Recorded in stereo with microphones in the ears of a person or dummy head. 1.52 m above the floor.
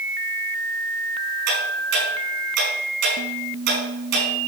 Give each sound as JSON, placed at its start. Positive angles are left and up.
{"t": 1.5, "sound": "ticking", "side_deg": -60, "distance_m": 6.0}